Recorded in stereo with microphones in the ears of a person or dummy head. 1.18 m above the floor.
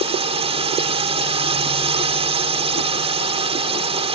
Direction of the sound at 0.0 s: 30° right (ahead or behind).